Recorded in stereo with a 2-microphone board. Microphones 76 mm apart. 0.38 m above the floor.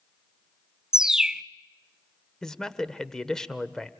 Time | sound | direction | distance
0.9 | a bird | 10° right (ahead or behind) | 0.6 m
2.4 | a man speaking | 5° left (ahead or behind) | 1.1 m